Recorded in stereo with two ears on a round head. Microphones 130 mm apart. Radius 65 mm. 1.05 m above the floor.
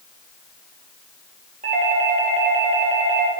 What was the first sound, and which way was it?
A doorbell, 50° right (ahead or behind).